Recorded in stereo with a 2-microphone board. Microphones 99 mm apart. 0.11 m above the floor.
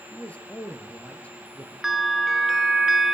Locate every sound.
0.1 s a man speaking: 10° left (ahead or behind), 1.6 m
1.8 s a bell: 5° right (ahead or behind), 1.2 m